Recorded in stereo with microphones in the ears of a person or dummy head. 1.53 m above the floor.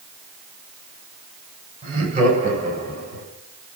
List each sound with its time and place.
1.8 s laughter: 40° right (ahead or behind), 8.5 m; by 3.2 s 45° right (ahead or behind), 10.5 m